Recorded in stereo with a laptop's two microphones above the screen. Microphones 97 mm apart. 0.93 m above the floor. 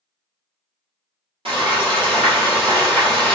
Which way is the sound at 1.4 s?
75° right (ahead or behind).